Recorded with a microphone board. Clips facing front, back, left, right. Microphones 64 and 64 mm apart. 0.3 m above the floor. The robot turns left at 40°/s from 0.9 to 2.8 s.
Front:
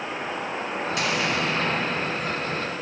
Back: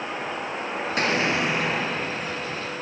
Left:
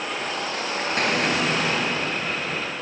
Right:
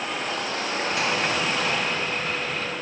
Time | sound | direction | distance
1.0 | an explosion | 130° left | 2 m